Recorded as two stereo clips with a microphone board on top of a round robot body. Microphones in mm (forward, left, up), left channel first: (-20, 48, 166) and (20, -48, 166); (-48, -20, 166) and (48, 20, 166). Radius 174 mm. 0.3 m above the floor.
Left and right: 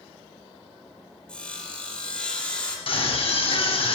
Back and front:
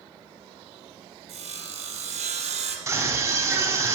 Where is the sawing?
30° left, 4 m.